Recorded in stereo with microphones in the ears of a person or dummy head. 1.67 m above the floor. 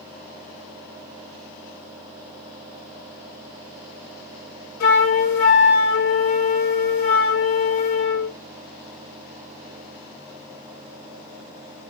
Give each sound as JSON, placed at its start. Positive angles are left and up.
{"t": 4.8, "sound": "a flute", "side_deg": 60, "distance_m": 1.2}